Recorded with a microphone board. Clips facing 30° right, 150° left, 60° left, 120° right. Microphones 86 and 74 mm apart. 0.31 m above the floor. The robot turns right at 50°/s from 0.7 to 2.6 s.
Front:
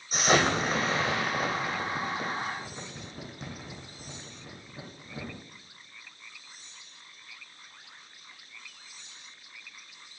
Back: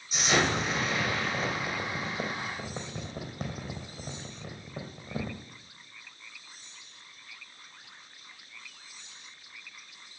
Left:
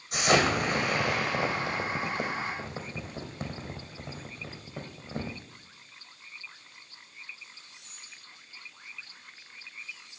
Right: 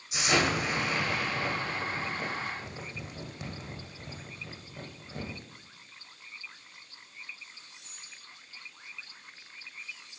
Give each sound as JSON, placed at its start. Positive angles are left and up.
{"t": 0.1, "sound": "an explosion", "azimuth_deg": 20, "distance_m": 3.5}